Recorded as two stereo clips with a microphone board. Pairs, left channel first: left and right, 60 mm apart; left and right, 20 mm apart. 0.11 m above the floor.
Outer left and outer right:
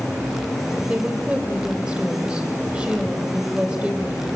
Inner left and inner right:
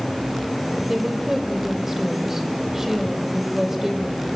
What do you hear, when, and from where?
0.9 s a woman speaking: 25° right (ahead or behind), 3 m